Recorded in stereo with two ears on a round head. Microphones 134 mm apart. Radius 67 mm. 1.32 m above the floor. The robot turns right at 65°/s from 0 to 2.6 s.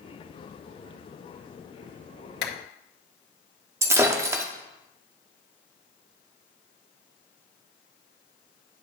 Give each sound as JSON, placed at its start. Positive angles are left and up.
{"t": 2.4, "sound": "a clap", "side_deg": 80, "distance_m": 1.6}
{"t": 3.8, "sound": "breaking glass", "side_deg": -20, "distance_m": 0.9}